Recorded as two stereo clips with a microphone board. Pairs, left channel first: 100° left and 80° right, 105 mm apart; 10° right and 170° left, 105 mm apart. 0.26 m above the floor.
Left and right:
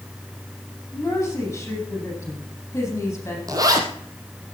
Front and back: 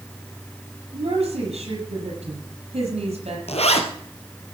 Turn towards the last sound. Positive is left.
turn(degrees=-25)